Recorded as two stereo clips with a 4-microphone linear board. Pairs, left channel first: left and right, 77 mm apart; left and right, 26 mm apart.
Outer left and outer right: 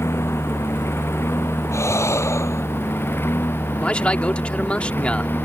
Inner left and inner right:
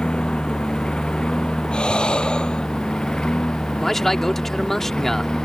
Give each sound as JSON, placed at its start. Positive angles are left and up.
{"t": 0.0, "sound": "a lawn mower", "side_deg": 35}
{"t": 1.7, "sound": "breathing", "side_deg": 35}
{"t": 3.8, "sound": "a man speaking", "side_deg": 15}